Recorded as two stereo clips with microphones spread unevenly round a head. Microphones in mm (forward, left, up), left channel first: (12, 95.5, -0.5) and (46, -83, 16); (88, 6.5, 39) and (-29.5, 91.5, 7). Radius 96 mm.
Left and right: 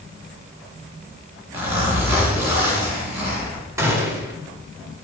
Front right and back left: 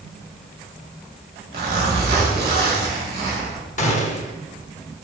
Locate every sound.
1.5 s a zipper: 155° right, 3 m
3.8 s a gunshot: 5° right, 1.5 m